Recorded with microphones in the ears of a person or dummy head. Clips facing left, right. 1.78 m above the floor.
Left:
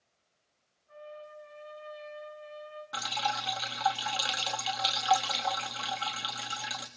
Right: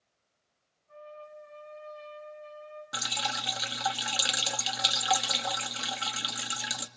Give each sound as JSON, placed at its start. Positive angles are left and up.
{"t": 0.9, "sound": "a trumpet", "side_deg": 5, "distance_m": 8.0}
{"t": 2.9, "sound": "dripping", "side_deg": -30, "distance_m": 1.8}